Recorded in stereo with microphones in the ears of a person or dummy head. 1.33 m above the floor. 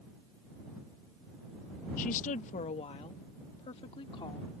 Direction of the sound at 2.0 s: 45° left (ahead or behind).